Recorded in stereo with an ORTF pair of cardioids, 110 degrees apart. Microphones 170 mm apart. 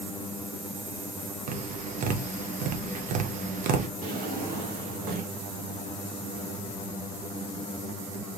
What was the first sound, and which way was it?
Tapping, 55° right.